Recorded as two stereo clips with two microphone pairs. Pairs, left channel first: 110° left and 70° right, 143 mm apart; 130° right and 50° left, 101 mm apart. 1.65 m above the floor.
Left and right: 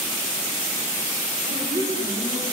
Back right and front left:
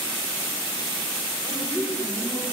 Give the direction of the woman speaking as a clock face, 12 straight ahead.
2 o'clock.